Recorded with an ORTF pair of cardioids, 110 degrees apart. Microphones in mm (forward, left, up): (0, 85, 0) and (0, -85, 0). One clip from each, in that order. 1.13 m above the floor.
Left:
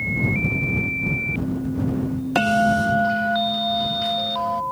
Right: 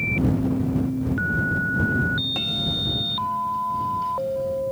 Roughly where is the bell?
Left.